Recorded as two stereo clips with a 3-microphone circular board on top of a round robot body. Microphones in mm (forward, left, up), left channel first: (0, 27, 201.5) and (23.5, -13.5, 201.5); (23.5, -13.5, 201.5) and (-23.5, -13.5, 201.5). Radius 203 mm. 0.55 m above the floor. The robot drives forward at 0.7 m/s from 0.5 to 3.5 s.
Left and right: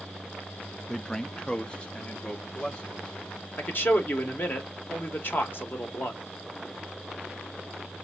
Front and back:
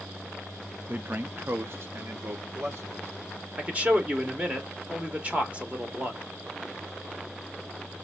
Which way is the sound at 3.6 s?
135° left.